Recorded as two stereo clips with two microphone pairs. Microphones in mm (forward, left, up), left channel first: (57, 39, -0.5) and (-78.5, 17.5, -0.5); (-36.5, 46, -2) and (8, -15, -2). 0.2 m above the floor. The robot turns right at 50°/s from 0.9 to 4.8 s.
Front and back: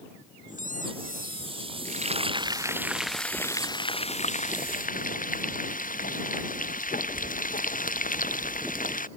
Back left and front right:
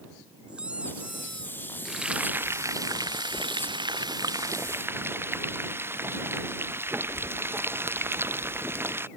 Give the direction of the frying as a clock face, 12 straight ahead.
5 o'clock.